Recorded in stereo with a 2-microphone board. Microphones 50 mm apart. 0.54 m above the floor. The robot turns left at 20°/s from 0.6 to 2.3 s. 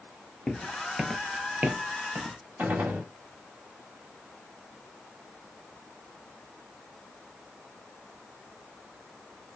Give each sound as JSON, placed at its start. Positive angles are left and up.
{"t": 0.5, "sound": "footsteps", "side_deg": 10, "distance_m": 0.6}
{"t": 2.6, "sound": "a gunshot", "side_deg": -45, "distance_m": 1.0}